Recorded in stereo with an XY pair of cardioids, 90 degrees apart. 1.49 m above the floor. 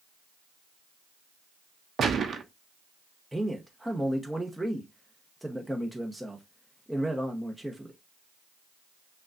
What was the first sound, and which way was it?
A gunshot, 60° right.